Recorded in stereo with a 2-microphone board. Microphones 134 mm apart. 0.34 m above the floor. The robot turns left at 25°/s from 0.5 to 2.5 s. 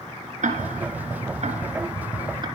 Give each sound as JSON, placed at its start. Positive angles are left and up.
{"t": 0.4, "sound": "ticking", "side_deg": -80, "distance_m": 3.0}